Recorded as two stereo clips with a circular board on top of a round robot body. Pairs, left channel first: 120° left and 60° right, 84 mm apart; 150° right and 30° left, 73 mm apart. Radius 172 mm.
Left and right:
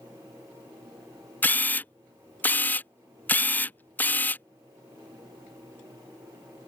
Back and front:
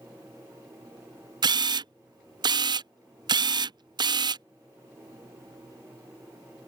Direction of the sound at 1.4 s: 50° left.